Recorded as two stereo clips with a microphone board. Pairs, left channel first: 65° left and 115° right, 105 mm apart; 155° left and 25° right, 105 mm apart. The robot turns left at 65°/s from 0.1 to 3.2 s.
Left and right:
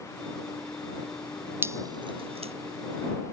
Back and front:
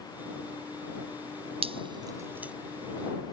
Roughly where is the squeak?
I don't hear a squeak.